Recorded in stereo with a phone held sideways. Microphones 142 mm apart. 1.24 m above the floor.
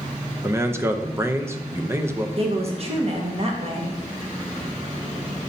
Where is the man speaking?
20° right (ahead or behind), 0.7 m.